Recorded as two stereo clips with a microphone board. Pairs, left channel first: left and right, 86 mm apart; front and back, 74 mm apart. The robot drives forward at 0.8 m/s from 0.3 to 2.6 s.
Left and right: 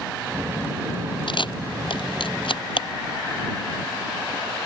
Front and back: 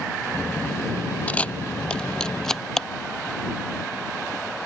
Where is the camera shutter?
70° left; by 2.9 s 85° left.